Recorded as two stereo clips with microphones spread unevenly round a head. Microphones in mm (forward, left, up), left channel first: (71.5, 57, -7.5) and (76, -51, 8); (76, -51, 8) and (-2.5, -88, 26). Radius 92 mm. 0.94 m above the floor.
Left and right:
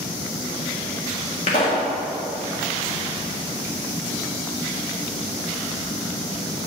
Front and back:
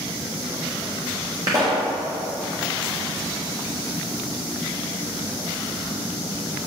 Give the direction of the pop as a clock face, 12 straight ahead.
7 o'clock.